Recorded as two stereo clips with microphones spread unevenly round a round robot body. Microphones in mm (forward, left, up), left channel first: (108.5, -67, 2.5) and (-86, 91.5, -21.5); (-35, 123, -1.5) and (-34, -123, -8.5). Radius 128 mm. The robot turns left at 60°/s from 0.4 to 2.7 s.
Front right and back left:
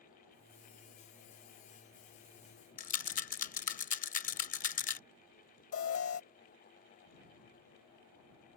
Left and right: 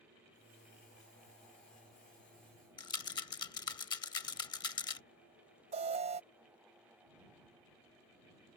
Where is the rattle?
20° left.